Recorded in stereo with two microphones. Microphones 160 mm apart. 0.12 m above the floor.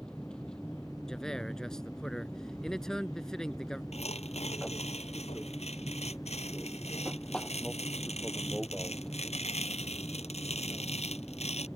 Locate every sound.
0.0 s an aircraft: 5° left (ahead or behind)
1.1 s a man speaking: 5° left (ahead or behind)
3.9 s tearing paper: 40° left (ahead or behind)